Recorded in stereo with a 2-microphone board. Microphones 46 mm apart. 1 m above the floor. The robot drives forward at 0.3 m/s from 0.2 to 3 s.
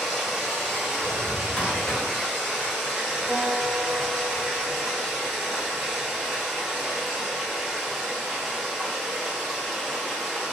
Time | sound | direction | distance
0.0 | running water | 5° left (ahead or behind) | 1.6 m
1.0 | a drawer | 20° left (ahead or behind) | 1.6 m
3.3 | a guitar | 15° left (ahead or behind) | 2.0 m